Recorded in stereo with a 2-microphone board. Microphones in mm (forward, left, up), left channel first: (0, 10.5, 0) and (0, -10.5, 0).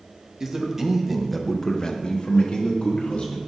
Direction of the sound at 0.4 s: 30° right (ahead or behind).